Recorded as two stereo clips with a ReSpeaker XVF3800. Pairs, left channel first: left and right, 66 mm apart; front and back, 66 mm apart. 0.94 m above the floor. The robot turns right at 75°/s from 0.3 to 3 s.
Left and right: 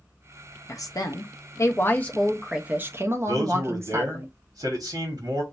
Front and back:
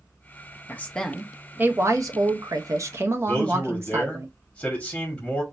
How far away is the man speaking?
About 1.8 m.